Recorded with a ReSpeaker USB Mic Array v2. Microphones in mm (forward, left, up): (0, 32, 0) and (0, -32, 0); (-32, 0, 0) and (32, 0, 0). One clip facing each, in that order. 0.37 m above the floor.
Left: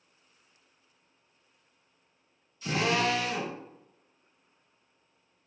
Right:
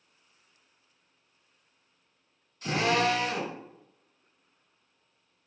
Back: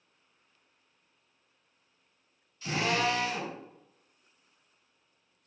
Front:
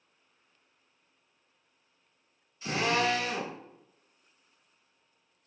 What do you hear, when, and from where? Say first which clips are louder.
2.6 s a drill: right 2 dB, front 1 dB; 65° right, 2.5 m